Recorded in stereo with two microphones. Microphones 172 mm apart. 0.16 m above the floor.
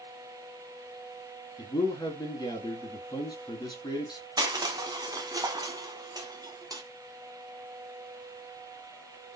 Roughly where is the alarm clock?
I don't hear an alarm clock.